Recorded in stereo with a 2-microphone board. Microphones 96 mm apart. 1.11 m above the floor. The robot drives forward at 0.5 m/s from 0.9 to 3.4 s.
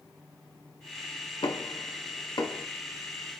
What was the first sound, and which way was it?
Knocking, 55° left (ahead or behind).